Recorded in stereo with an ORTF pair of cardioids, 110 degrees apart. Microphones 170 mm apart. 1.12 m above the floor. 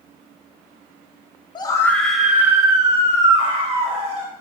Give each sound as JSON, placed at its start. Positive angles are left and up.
{"t": 1.6, "sound": "a scream", "azimuth_deg": 25, "distance_m": 0.8}